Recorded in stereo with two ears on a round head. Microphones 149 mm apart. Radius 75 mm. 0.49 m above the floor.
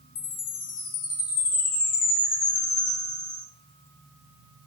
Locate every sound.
0.1 s a chime: 55° left (ahead or behind), 1.7 m